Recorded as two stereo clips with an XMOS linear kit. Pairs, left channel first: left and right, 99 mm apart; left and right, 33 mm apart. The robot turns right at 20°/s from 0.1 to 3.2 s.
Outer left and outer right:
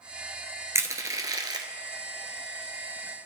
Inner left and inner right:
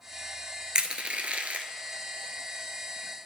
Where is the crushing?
30° right (ahead or behind), 0.6 m; by 1.7 s 45° right (ahead or behind), 0.6 m.